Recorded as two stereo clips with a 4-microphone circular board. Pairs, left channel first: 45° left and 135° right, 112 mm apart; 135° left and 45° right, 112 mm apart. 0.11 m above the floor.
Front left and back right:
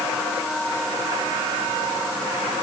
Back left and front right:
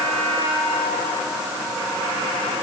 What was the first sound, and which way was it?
Only background noise.